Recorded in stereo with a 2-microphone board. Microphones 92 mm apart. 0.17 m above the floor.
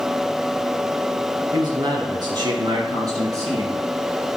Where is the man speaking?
55° right (ahead or behind), 3 m; by 4.3 s 35° right (ahead or behind), 4 m.